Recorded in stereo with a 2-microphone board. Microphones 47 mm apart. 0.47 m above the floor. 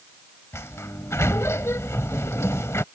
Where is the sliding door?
75° left (ahead or behind).